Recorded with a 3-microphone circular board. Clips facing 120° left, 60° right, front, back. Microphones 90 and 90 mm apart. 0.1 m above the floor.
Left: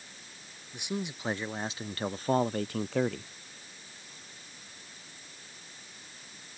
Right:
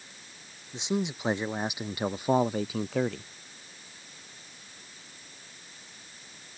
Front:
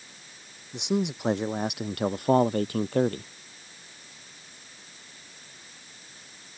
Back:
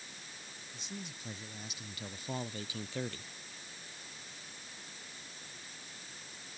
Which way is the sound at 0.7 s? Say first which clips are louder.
Right 6 dB, front 20 dB; 10° left.